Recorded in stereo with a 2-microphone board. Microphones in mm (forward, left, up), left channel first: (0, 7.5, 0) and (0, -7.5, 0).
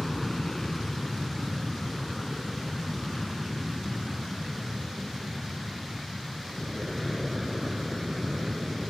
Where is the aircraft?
20° left (ahead or behind); by 8.9 s 10° right (ahead or behind).